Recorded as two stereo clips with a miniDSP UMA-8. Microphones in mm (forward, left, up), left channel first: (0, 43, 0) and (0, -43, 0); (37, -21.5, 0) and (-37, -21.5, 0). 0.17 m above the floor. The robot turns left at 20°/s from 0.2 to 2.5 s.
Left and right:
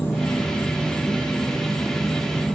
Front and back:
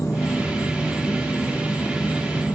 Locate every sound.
0.0 s an insect: 35° left, 2.5 m; by 2.5 s 10° right, 2.5 m